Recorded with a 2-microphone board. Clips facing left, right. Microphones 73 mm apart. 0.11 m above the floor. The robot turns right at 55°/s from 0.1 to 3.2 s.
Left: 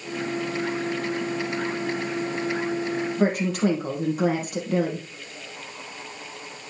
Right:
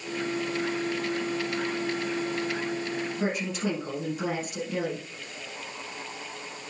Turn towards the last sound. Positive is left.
turn(degrees=55)  # may be behind; listen again after turning